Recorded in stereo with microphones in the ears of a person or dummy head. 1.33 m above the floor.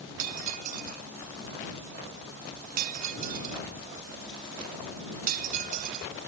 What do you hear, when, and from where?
0.2 s breaking glass: 50° right (ahead or behind)